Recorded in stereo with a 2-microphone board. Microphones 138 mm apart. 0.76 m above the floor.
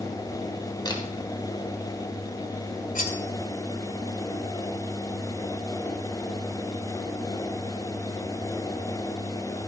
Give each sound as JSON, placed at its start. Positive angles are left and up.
{"t": 0.8, "sound": "a camera shutter", "side_deg": 30, "distance_m": 3.0}
{"t": 3.0, "sound": "cutlery clinking", "side_deg": 75, "distance_m": 1.8}